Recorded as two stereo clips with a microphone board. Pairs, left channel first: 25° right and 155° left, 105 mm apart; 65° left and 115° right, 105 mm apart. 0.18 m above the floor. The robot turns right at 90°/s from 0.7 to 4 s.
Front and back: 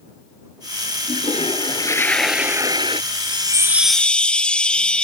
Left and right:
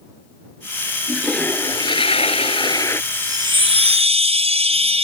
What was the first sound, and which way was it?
A toilet flushing, 40° right.